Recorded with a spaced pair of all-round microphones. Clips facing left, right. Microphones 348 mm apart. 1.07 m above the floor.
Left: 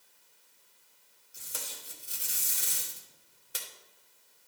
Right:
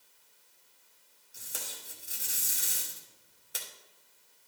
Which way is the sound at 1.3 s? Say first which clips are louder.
Even; centre (ahead or behind).